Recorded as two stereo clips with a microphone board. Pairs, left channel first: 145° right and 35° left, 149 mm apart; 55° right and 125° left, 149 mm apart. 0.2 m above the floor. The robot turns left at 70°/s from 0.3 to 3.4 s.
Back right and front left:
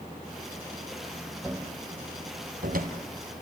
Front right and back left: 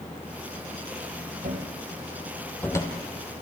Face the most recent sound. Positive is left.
turn(degrees=-30)